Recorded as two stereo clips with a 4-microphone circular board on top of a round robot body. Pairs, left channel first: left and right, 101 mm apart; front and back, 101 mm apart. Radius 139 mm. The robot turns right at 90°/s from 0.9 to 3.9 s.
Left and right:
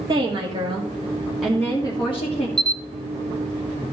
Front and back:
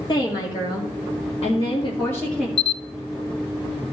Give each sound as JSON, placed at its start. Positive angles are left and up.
{"t": 0.1, "sound": "a woman speaking", "azimuth_deg": -45, "distance_m": 2.0}
{"t": 2.6, "sound": "a camera shutter", "azimuth_deg": 5, "distance_m": 0.6}